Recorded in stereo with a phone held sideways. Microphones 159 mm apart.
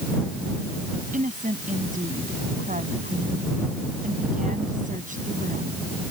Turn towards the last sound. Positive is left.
turn(degrees=-55)  # may be behind; listen again after turning